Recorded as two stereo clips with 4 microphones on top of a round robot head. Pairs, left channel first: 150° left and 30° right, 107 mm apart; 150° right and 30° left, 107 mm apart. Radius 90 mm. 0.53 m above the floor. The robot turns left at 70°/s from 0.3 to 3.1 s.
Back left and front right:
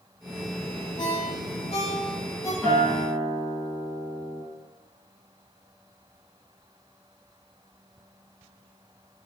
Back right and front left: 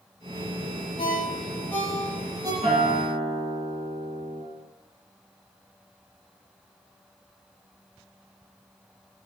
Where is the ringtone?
165° right, 0.9 m; by 2.5 s 90° left, 0.9 m.